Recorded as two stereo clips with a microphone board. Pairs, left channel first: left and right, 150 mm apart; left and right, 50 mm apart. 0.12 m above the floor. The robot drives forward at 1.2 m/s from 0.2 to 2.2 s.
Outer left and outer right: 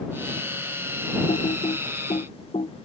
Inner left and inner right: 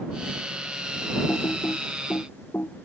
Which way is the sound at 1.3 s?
55° left (ahead or behind).